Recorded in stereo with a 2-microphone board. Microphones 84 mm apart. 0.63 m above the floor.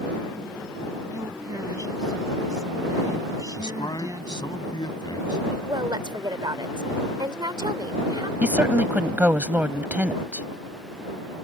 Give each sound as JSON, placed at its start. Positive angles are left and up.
{"t": 1.1, "sound": "a woman speaking", "side_deg": -45}
{"t": 3.6, "sound": "a man speaking", "side_deg": 55}
{"t": 5.7, "sound": "a woman speaking", "side_deg": -60}
{"t": 8.4, "sound": "a woman speaking", "side_deg": -20}